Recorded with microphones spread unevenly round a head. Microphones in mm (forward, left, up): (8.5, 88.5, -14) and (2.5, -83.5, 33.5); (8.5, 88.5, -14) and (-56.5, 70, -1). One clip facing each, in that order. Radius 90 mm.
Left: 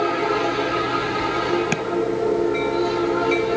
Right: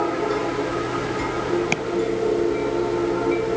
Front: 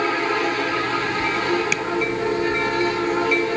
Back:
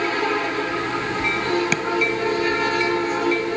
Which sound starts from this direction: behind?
Tapping, at 1.7 s.